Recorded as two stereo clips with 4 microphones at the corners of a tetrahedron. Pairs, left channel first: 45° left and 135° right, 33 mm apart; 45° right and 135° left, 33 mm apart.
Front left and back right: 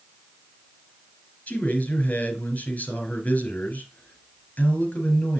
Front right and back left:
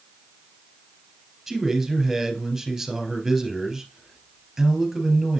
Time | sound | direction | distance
1.5 | a man speaking | 50° left | 3 m